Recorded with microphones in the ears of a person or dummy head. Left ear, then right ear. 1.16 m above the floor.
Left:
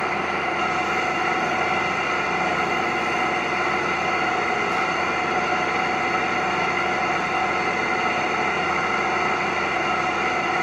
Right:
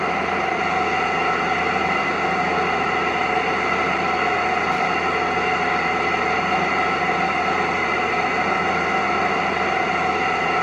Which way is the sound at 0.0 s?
10° right (ahead or behind).